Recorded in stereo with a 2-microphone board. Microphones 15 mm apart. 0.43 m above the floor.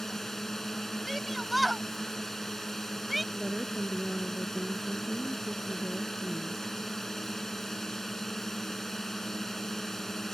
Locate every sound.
0.0 s a drone: 35° left (ahead or behind)
1.1 s a shout: 5° left (ahead or behind)
3.3 s a woman speaking: 80° right